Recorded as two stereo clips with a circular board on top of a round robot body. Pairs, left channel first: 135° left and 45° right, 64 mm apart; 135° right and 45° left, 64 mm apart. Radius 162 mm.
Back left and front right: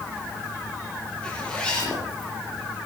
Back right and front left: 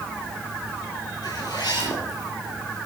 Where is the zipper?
150° right, 8 m.